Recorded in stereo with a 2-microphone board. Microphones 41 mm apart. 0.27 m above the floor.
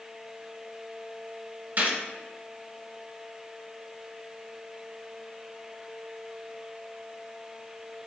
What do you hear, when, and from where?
1.8 s a gunshot: 45° right (ahead or behind), 1.4 m